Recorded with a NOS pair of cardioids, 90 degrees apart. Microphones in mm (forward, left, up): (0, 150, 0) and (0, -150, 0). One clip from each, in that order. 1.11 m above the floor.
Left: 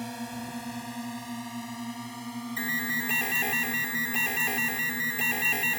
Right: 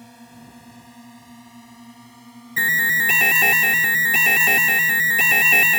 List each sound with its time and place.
0.0 s a drone: 60° left; by 5.8 s 35° left
2.6 s an alarm: 65° right